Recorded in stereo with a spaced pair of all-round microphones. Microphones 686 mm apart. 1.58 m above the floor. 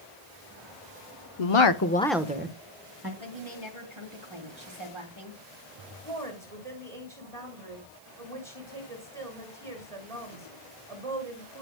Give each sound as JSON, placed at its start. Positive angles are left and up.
{"t": 1.4, "sound": "a woman speaking", "side_deg": 60, "distance_m": 1.0}
{"t": 3.2, "sound": "a woman speaking", "side_deg": -45, "distance_m": 3.0}
{"t": 6.0, "sound": "a woman speaking", "side_deg": -55, "distance_m": 6.5}